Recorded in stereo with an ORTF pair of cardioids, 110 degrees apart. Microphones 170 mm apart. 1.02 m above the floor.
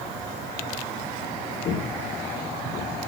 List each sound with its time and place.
1.6 s footsteps: 60° left, 5 m; by 2.9 s 55° left, 4 m